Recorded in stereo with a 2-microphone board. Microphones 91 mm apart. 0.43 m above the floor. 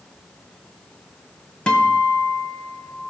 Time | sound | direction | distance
1.7 | a guitar | 10° left (ahead or behind) | 1.7 m